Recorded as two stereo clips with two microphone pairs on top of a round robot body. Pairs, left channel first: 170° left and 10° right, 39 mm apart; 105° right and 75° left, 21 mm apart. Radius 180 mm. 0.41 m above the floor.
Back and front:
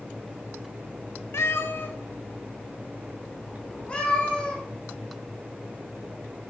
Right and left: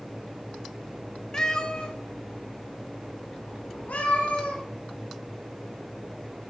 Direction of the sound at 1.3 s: 170° right.